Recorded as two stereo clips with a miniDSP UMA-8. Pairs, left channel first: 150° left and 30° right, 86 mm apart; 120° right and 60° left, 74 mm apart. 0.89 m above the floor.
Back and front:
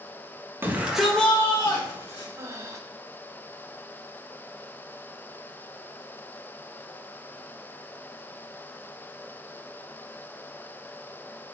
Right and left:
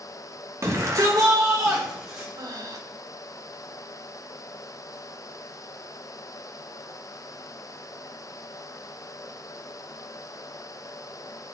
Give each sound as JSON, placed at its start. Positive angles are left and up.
{"t": 0.6, "sound": "a shout", "azimuth_deg": 25, "distance_m": 1.4}
{"t": 2.4, "sound": "breathing", "azimuth_deg": 25, "distance_m": 1.0}